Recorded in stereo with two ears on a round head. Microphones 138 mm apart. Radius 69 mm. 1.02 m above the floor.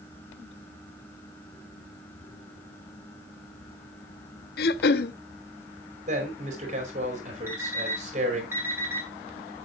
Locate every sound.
4.6 s throat clearing: 70° left (ahead or behind), 0.7 m
6.1 s a man speaking: 45° right (ahead or behind), 4.5 m
7.5 s an alarm clock: 15° right (ahead or behind), 3.5 m